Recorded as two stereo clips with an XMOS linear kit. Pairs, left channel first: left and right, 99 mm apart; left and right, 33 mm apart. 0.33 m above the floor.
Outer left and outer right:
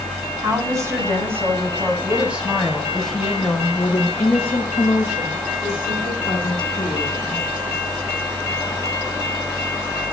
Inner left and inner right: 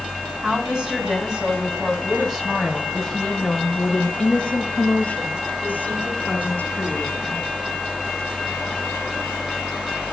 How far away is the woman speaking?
About 3.5 m.